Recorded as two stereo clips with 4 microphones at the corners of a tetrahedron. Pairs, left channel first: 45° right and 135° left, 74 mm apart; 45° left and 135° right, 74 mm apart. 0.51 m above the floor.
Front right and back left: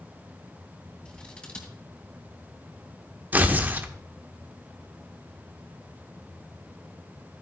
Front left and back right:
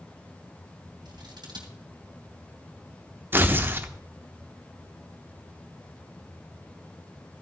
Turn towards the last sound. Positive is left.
turn(degrees=180)